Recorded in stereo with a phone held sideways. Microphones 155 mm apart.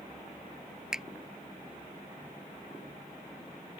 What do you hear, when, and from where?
0.9 s a finger snap: 5° right (ahead or behind)